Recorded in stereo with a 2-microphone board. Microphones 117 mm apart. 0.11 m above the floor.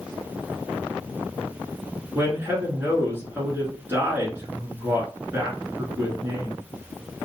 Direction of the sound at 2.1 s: 20° right (ahead or behind).